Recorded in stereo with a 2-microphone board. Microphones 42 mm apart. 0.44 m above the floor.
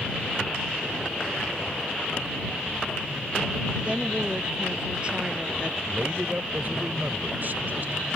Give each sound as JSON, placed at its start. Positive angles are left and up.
{"t": 3.9, "sound": "a woman speaking", "side_deg": -30}
{"t": 5.9, "sound": "a man speaking", "side_deg": -55}